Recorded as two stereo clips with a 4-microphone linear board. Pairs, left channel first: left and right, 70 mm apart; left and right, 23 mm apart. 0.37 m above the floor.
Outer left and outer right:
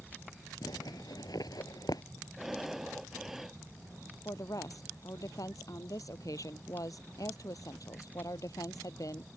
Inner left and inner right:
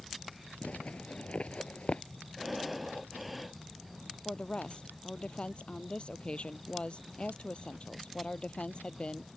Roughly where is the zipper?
Left.